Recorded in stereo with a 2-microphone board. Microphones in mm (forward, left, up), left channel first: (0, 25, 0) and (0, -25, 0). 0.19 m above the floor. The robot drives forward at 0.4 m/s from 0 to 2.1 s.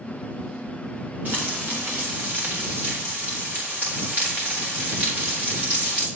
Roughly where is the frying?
Right.